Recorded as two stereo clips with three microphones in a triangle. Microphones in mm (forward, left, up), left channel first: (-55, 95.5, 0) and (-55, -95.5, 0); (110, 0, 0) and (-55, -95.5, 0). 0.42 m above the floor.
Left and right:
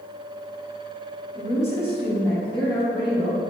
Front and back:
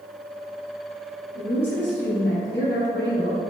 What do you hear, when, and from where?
1.4 s a woman speaking: 25° left, 3 m; by 3.4 s straight ahead, 3.5 m